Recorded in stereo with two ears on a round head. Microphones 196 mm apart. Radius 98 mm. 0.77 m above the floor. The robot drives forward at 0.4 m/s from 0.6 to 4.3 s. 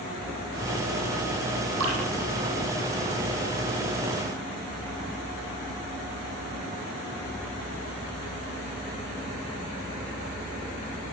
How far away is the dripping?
About 8.5 m.